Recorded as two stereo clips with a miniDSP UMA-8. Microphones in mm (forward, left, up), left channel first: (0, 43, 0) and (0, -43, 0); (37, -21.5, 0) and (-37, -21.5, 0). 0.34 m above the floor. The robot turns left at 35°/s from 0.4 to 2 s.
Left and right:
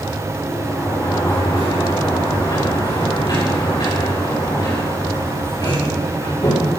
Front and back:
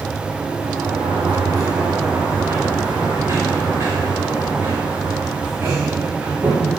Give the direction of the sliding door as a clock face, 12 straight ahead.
6 o'clock.